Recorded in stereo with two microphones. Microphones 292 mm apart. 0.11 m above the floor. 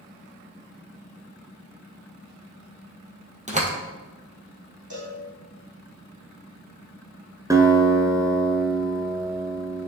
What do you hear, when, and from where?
3.5 s a door slam: 25° right (ahead or behind), 1.8 m
4.9 s a cowbell: 75° left (ahead or behind), 3.5 m
7.5 s a guitar: 10° right (ahead or behind), 1.0 m